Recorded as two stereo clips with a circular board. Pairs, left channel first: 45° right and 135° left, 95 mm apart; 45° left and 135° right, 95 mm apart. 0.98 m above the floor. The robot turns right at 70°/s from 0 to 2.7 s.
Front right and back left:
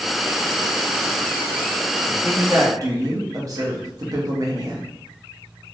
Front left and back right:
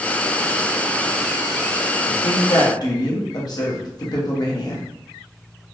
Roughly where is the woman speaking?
Ahead left.